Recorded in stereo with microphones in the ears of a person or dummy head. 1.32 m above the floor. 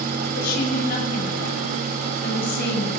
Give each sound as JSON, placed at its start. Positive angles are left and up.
{"t": 0.3, "sound": "a woman speaking", "side_deg": 60, "distance_m": 9.0}